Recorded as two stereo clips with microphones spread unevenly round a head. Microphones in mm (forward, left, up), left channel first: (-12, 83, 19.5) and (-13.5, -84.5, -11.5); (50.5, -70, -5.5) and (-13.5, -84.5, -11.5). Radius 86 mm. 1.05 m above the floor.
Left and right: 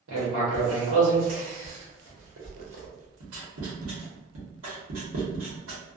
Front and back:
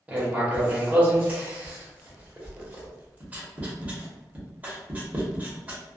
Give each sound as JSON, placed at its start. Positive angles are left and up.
{"t": 0.1, "sound": "writing", "azimuth_deg": -100, "distance_m": 1.0}